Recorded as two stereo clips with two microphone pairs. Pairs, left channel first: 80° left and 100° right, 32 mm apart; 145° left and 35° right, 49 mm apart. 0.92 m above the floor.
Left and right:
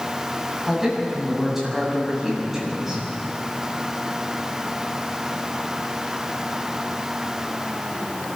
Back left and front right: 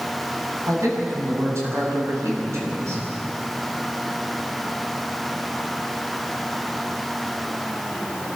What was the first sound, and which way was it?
A man speaking, 20° right.